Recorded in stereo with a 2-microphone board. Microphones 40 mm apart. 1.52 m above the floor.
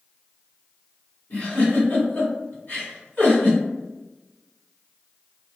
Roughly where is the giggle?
Left.